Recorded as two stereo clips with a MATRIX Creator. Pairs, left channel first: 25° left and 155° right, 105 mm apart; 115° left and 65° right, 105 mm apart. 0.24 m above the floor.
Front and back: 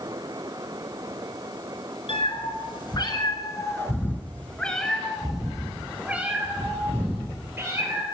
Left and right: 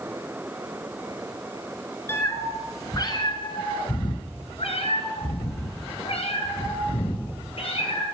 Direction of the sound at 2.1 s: 45° left.